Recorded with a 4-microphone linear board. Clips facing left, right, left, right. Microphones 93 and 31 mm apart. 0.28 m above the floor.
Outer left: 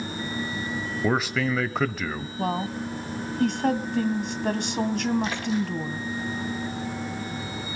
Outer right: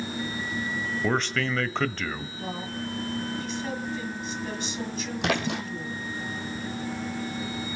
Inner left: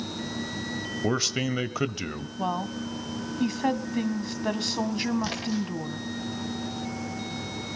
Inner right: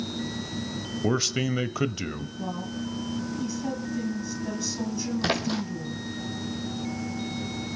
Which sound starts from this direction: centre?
A man speaking, at 1.0 s.